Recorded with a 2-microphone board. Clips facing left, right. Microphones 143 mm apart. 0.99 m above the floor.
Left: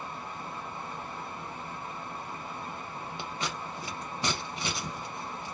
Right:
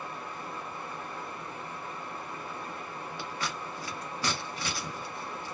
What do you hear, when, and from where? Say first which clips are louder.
0.0 s running water: even; 25° left (ahead or behind), 0.9 m
3.2 s scissors: left 1 dB; 20° left (ahead or behind), 0.8 m